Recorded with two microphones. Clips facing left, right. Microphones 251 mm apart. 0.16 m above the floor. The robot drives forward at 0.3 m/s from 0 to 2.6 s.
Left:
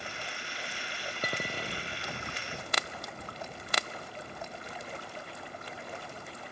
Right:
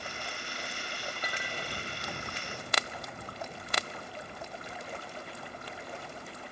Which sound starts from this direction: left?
A clink, at 1.2 s.